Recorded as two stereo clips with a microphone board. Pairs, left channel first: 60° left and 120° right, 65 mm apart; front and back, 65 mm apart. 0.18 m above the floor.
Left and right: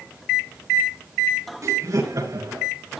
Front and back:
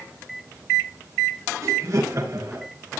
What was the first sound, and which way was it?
Laughter, 150° right.